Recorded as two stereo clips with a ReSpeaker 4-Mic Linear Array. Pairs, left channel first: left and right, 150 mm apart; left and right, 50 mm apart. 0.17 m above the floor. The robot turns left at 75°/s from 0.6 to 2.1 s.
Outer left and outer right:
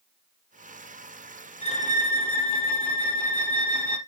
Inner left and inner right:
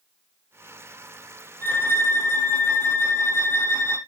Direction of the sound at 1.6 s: 135° left.